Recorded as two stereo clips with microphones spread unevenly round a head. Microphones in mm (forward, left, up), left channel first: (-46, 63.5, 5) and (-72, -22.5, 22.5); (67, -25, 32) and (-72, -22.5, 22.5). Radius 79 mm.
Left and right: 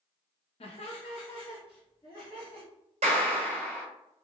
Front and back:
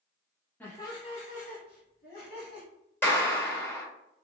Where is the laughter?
80° left, 0.8 m; by 2.7 s 15° left, 1.8 m.